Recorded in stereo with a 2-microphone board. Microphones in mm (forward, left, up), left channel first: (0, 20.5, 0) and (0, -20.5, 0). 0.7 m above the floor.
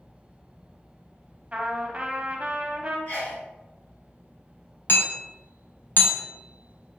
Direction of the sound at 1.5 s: 30° right (ahead or behind).